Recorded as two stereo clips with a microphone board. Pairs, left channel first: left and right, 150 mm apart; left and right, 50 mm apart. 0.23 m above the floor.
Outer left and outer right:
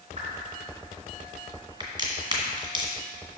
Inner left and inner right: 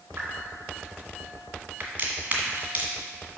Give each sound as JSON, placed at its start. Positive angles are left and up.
{"t": 0.2, "sound": "a whoosh", "side_deg": -45, "distance_m": 2.5}
{"t": 1.8, "sound": "a crack", "side_deg": -35, "distance_m": 1.8}